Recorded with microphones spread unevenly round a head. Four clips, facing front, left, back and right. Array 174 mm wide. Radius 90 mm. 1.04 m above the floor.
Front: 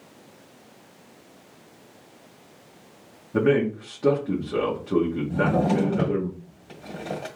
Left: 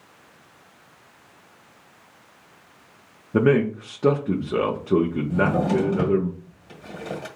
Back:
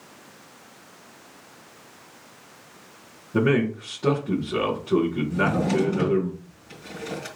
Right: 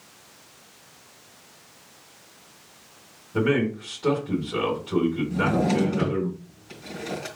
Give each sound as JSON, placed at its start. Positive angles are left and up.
{"t": 3.3, "sound": "a man speaking", "azimuth_deg": 85, "distance_m": 1.4}
{"t": 5.3, "sound": "a drawer", "azimuth_deg": 50, "distance_m": 1.6}